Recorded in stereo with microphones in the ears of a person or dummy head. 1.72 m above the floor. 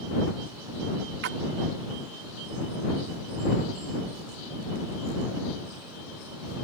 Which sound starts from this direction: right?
A splash, at 1.2 s.